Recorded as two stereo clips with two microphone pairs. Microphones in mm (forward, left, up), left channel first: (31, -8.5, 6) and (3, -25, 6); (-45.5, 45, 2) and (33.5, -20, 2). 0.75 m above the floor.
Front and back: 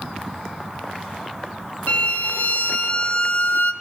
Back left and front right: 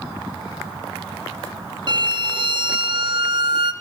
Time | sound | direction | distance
1.9 | a violin | 5° right | 0.5 m